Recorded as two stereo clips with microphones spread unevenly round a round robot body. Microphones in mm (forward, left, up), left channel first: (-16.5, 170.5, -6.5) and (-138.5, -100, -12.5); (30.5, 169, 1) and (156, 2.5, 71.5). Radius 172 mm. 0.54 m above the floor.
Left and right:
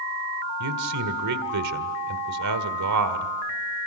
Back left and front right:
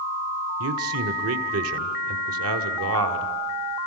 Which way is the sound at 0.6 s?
85° right.